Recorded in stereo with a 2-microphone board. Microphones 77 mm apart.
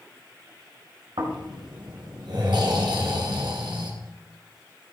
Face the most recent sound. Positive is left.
turn(degrees=-80)